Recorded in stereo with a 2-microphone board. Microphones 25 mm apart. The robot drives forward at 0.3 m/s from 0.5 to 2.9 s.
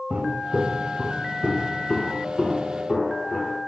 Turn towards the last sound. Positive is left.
turn(degrees=45)  # may be behind; listen again after turning